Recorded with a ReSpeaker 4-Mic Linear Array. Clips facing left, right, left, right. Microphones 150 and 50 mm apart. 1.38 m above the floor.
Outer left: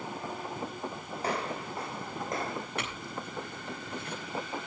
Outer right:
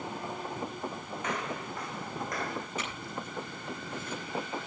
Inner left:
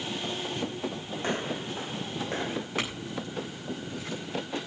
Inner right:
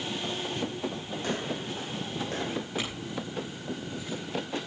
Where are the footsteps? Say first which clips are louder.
Outer left 3 dB, inner left 2 dB; 35° left (ahead or behind), 3 m; by 2.7 s 25° left (ahead or behind), 3.5 m.